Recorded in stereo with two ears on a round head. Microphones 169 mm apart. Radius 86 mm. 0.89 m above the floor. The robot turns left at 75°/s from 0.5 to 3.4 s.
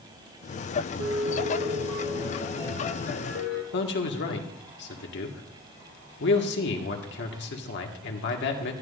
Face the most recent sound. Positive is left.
turn(degrees=65)  # may be behind; listen again after turning